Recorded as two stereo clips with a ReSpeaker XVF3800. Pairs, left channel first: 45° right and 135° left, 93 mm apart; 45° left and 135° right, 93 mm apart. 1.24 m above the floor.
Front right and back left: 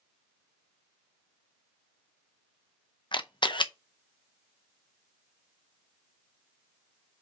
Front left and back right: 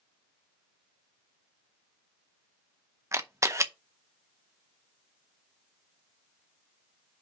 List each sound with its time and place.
3.1 s a camera shutter: 75° right, 0.7 m